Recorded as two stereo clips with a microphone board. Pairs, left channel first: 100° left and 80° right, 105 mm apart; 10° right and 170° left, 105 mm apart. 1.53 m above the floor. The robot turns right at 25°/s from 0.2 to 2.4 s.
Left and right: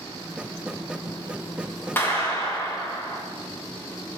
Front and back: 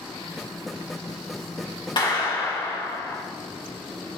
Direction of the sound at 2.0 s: 30° left.